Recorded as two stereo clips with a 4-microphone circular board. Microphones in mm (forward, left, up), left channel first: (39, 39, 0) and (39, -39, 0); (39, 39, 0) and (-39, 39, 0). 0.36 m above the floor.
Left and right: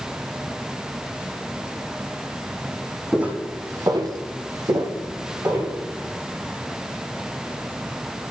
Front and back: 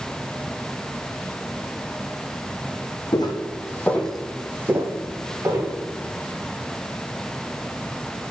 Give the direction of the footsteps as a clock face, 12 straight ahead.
12 o'clock.